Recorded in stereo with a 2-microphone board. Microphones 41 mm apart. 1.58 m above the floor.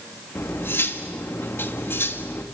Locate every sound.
0.3 s cutlery clinking: 65° left (ahead or behind), 1.6 m